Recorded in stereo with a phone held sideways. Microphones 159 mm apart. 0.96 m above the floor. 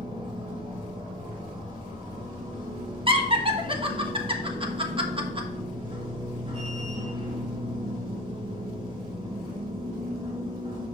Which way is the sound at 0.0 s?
30° right (ahead or behind).